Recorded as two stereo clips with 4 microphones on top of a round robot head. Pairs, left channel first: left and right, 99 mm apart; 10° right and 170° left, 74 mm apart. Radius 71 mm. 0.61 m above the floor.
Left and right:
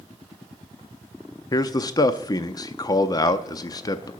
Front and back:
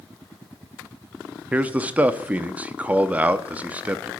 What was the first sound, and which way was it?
A man speaking, 110° left.